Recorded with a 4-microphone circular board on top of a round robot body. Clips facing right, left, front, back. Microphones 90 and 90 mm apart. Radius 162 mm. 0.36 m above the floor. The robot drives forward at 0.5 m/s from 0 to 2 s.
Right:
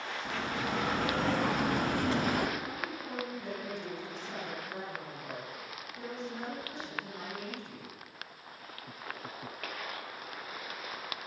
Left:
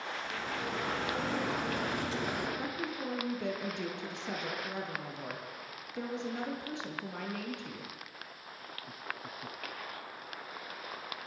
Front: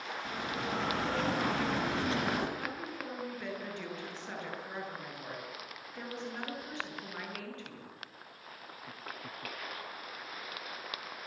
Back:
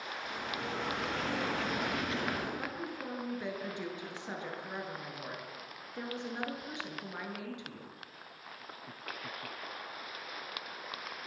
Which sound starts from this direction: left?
A woman speaking, at 2.6 s.